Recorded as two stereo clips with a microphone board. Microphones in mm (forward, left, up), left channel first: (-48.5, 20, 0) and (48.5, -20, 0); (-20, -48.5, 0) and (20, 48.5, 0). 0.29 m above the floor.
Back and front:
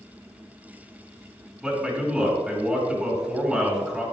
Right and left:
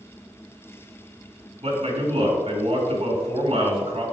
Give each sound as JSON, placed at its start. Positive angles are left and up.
{"t": 1.6, "sound": "a man speaking", "azimuth_deg": 60, "distance_m": 3.0}